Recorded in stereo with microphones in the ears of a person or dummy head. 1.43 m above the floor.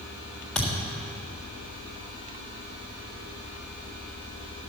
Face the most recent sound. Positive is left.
turn(degrees=5)  # may be behind; listen again after turning